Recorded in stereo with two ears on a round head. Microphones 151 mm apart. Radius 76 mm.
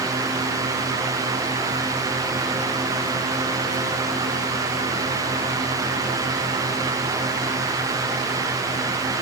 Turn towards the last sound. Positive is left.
No sound to turn to.